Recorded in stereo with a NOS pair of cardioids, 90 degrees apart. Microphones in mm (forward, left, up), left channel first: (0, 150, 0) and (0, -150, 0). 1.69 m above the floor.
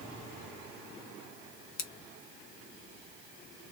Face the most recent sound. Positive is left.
turn(degrees=55)